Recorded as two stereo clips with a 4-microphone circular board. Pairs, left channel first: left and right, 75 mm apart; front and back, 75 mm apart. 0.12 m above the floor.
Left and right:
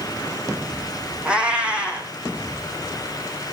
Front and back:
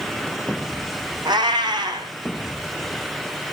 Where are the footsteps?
I don't hear footsteps.